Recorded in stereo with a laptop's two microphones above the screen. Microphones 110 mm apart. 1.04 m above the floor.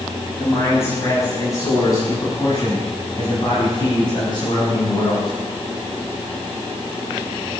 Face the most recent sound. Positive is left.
turn(degrees=45)  # may be behind; listen again after turning